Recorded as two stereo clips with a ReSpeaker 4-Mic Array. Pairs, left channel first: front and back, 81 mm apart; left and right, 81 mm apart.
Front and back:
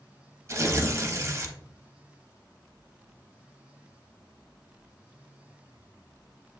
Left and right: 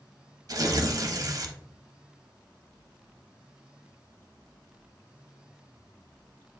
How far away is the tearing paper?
About 0.6 m.